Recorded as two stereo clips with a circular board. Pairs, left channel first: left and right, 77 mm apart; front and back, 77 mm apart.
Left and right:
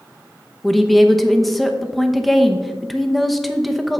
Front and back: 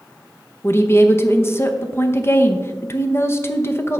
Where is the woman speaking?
Straight ahead, 0.8 m.